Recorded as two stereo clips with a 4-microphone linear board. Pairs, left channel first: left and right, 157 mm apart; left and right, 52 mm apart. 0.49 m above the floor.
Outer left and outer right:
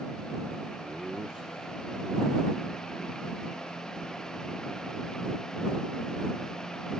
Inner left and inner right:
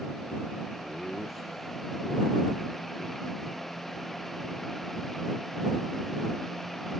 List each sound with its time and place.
0.8 s laughter: 5° right (ahead or behind); by 5.5 s centre (ahead or behind)